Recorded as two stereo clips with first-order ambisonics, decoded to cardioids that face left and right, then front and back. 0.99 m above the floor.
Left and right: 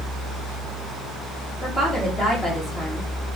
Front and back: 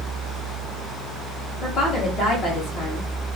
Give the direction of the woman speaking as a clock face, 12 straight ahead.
11 o'clock.